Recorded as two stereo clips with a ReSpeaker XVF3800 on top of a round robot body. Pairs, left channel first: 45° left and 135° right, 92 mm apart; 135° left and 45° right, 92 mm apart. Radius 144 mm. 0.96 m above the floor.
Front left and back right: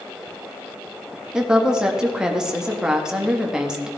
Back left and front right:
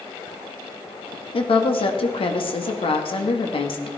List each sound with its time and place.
1.3 s a woman speaking: 145° left, 1.7 m